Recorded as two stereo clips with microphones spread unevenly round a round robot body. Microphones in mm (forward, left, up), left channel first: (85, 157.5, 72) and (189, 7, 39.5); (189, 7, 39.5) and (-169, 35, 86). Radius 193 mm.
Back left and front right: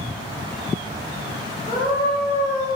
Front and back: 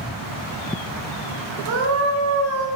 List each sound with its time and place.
1.7 s a scream: 160° right, 5 m; by 2.7 s 155° right, 4.5 m